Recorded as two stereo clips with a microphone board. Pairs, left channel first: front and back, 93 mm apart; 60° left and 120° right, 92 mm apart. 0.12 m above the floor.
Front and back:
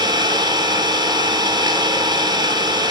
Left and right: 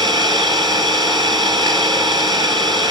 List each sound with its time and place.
0.0 s an engine running: 150° right, 1.4 m